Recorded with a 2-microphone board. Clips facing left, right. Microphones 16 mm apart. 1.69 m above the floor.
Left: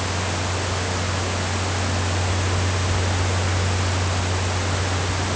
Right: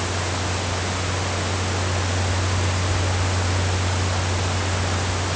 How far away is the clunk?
No clunk in this recording.